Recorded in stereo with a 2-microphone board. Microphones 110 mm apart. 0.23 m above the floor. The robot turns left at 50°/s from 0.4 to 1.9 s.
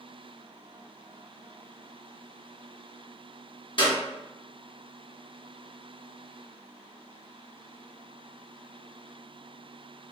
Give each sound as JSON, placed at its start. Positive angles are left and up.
{"t": 3.8, "sound": "a clap", "side_deg": 50, "distance_m": 1.8}